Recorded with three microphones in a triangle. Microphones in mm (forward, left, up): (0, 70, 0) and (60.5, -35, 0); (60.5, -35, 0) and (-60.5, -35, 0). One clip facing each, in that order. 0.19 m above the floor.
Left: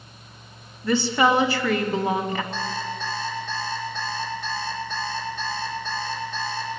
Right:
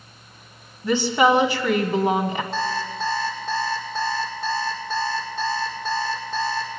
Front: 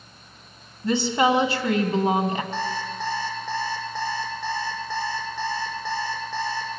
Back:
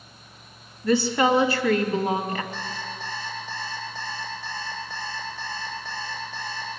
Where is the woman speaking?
20° right, 1.5 m.